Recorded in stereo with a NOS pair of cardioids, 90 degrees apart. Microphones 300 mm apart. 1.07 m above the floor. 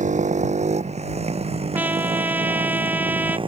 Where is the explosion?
No explosion in this recording.